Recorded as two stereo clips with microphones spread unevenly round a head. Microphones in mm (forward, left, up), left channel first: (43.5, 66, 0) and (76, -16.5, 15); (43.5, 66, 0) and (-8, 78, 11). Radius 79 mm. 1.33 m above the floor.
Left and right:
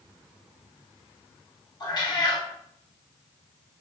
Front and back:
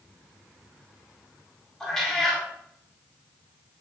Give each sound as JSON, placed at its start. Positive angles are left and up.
{"t": 1.8, "sound": "a cat meowing", "azimuth_deg": 70, "distance_m": 2.0}